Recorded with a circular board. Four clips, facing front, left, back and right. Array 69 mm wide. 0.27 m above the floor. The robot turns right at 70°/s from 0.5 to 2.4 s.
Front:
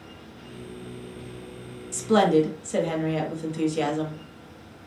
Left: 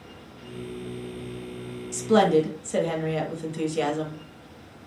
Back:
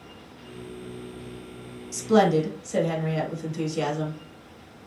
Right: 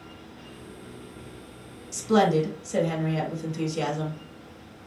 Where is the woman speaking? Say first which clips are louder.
Left 2 dB, even; 20° left, 1.0 m; by 4.2 s 55° left, 1.0 m.